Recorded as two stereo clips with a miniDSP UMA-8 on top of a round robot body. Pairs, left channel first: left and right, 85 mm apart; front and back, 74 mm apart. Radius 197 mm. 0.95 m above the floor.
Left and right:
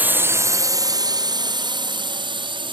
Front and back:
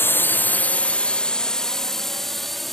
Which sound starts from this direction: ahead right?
A drone, at 0.0 s.